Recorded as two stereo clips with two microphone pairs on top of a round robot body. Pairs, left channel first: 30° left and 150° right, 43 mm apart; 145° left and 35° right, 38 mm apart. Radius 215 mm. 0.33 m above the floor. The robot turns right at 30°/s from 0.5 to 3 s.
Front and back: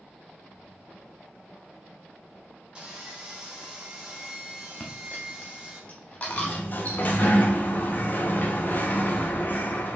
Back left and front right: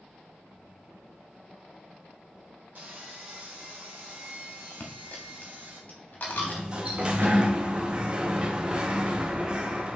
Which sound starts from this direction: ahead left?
A sliding door, at 6.3 s.